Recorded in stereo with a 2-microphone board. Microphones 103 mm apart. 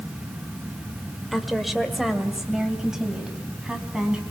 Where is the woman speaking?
Centre (ahead or behind), 1.8 m; by 4.2 s 10° right (ahead or behind), 4.5 m.